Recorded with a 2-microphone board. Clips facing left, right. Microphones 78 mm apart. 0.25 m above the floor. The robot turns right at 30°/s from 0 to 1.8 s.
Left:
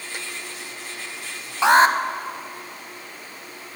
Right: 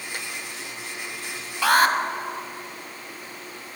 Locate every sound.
1.6 s an alarm: 25° left (ahead or behind), 0.8 m